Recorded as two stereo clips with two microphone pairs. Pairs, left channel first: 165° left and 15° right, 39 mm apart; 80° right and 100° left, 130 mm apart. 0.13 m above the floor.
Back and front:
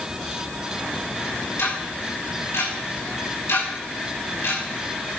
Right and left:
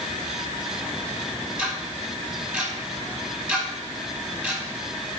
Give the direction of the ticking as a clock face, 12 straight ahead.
6 o'clock.